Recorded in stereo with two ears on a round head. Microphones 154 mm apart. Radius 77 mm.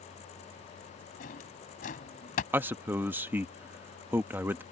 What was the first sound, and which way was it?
A drawer, 50° left (ahead or behind).